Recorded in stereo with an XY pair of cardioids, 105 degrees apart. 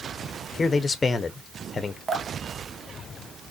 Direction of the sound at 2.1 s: 40° right.